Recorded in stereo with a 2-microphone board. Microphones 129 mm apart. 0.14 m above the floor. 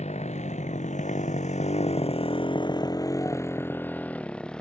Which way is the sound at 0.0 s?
70° left (ahead or behind).